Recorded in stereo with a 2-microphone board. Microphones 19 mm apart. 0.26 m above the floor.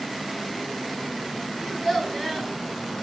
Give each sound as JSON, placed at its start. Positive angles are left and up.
{"t": 1.6, "sound": "a child speaking", "side_deg": 25, "distance_m": 1.2}